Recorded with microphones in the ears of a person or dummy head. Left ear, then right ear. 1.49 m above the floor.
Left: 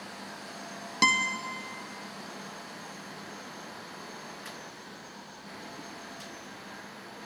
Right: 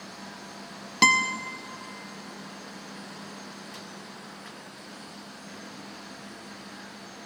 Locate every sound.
1.0 s a guitar: 10° right (ahead or behind), 0.7 m